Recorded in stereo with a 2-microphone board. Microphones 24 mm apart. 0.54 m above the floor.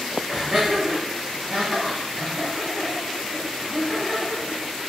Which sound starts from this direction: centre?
Laughter, at 0.3 s.